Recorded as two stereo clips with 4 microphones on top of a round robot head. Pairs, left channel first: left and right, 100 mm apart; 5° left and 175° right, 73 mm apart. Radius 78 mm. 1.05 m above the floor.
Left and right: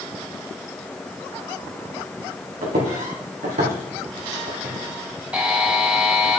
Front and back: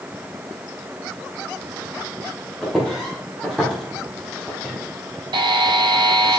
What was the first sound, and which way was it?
Footsteps, 80° right.